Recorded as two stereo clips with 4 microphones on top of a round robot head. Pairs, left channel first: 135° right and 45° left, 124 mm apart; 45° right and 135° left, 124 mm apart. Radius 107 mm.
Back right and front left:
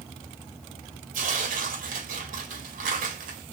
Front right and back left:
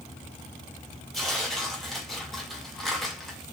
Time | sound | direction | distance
1.1 | tearing paper | 45° left | 1.8 m